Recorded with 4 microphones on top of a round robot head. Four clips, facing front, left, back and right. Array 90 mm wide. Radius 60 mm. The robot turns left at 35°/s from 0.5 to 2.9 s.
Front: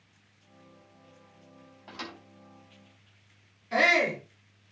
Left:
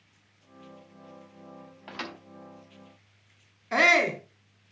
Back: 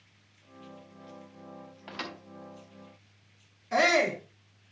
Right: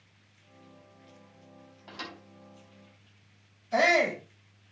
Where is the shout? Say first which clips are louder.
Left 2 dB, even; 105° left, 3 m.